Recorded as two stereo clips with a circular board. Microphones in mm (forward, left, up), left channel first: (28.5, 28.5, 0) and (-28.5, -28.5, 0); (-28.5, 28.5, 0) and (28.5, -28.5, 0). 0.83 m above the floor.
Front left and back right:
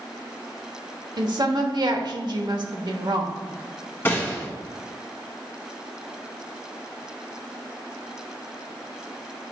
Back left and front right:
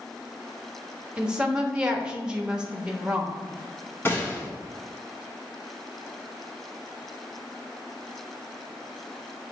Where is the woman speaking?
120° right, 1.0 m.